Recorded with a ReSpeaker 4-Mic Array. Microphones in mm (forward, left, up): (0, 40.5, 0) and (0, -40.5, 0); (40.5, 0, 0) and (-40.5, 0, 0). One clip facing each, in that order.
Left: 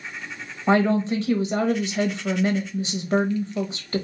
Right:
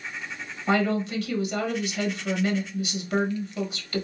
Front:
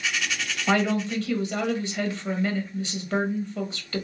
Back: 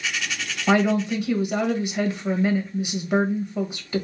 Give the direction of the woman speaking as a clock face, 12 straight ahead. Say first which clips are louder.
Left 4 dB, back 4 dB; 8 o'clock.